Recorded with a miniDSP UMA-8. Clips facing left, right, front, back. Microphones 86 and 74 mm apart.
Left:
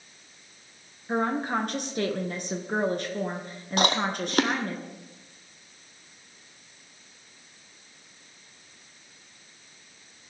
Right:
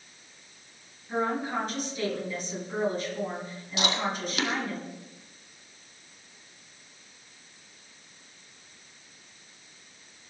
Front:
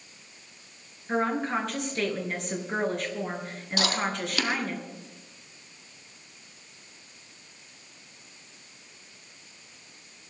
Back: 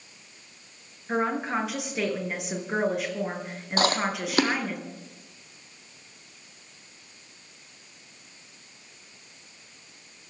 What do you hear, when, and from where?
1.1 s a woman speaking: 100° left, 3 m
3.8 s chewing: 130° left, 2.0 m